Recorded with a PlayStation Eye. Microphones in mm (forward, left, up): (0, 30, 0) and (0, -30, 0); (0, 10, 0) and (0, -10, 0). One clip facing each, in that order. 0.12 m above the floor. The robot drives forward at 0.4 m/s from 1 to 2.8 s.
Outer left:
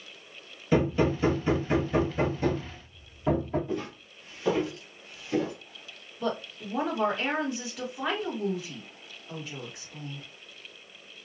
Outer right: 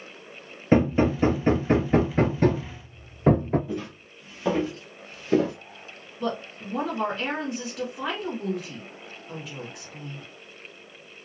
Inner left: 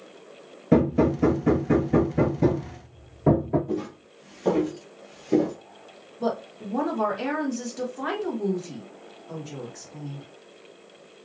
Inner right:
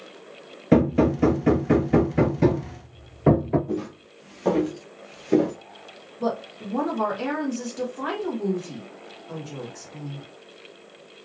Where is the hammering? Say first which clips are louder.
Outer right 4 dB, inner right 1 dB; 40° right (ahead or behind), 0.9 m; by 3.6 s 60° right (ahead or behind), 0.7 m.